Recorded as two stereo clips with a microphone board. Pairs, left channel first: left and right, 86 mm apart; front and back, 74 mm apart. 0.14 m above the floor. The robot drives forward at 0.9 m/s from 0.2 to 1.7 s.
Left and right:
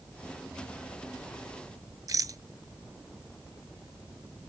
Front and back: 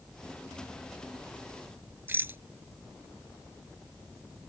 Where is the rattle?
125° right.